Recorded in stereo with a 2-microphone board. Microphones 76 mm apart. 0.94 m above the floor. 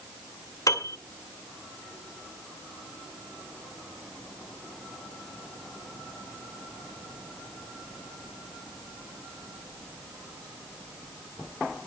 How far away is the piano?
About 2.5 m.